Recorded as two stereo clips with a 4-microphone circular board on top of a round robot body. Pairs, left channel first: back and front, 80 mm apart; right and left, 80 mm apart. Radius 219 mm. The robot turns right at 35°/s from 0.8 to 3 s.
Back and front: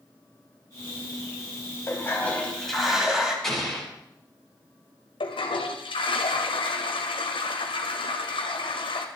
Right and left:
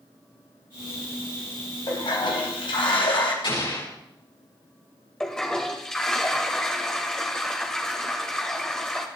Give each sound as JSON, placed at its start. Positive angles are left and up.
{"t": 1.9, "sound": "a toilet flushing", "azimuth_deg": -120, "distance_m": 3.0}
{"t": 3.4, "sound": "an explosion", "azimuth_deg": -95, "distance_m": 7.0}
{"t": 5.2, "sound": "a toilet flushing", "azimuth_deg": -175, "distance_m": 1.5}